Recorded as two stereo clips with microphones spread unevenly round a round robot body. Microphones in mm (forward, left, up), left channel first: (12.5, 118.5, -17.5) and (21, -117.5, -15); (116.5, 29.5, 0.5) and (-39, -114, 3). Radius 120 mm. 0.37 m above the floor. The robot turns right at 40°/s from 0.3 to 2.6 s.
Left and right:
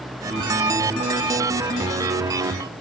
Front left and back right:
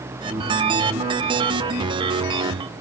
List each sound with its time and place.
Only background noise.